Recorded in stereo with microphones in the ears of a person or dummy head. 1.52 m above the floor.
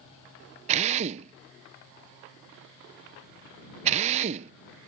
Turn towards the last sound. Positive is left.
turn(degrees=-35)  # may be behind; listen again after turning